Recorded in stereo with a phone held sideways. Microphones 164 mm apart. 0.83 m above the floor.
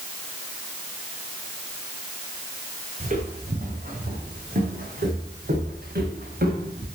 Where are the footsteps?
55° right (ahead or behind), 4.5 m; by 6.9 s 80° right, 6.5 m.